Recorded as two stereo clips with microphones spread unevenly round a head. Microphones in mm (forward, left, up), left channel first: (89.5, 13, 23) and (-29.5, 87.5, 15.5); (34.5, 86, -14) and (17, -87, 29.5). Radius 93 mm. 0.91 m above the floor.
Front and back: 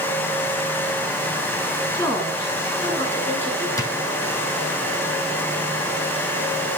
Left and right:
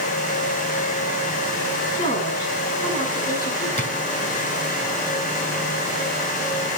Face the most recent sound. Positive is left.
turn(degrees=35)